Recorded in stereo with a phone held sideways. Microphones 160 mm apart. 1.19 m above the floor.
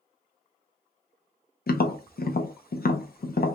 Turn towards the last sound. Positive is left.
turn(degrees=70)  # may be behind; listen again after turning